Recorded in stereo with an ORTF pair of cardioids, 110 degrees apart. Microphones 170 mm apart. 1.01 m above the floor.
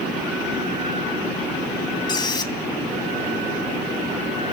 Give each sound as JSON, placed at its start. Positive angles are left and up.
{"t": 2.1, "sound": "a squeak", "azimuth_deg": 25, "distance_m": 2.0}